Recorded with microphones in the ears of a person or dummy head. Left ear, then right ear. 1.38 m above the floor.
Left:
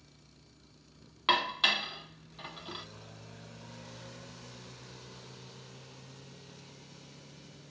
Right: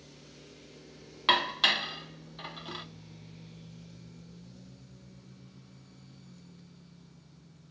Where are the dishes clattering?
10° right (ahead or behind), 0.8 m.